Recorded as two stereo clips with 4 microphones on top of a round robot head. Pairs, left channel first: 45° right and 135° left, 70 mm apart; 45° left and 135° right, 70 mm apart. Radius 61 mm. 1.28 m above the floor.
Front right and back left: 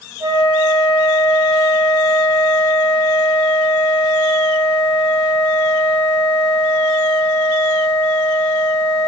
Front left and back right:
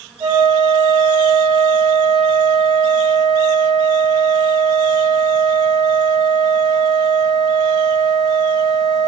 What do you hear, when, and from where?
0.2 s a flute: 170° right, 1.0 m